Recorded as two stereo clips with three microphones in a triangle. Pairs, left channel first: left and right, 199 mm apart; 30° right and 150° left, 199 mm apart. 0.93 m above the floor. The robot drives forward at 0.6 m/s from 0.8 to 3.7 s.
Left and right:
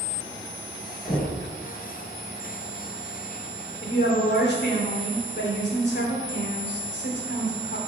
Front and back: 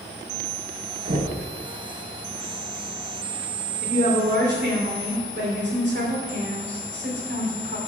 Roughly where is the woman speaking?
Behind left.